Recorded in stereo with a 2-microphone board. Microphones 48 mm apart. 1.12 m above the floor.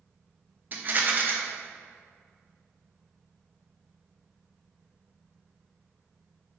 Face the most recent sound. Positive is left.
turn(degrees=-40)  # may be behind; listen again after turning